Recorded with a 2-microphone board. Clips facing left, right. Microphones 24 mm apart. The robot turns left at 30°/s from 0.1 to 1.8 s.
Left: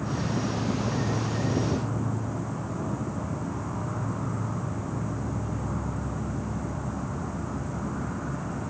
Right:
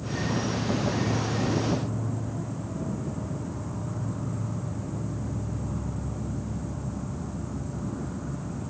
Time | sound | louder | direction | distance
0.0 | an insect | even | 85° left | ?